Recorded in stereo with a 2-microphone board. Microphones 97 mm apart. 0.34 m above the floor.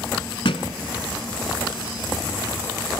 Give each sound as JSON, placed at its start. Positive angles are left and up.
{"t": 0.5, "sound": "a thud", "side_deg": 80, "distance_m": 0.9}